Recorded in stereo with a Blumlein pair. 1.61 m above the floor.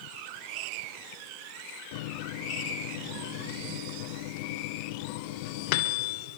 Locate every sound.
1.9 s a microwave: 50° left, 0.9 m